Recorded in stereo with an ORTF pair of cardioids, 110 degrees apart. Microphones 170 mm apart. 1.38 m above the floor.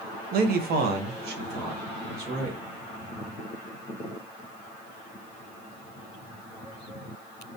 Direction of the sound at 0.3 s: 60° right.